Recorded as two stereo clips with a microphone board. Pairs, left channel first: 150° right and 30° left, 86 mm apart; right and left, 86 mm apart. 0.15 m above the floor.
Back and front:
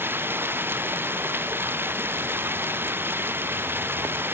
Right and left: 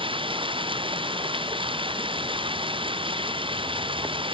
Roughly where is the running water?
Left.